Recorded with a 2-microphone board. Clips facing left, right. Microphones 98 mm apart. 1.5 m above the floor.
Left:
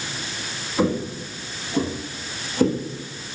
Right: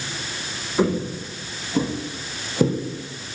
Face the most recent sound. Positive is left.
turn(degrees=-5)  # may be behind; listen again after turning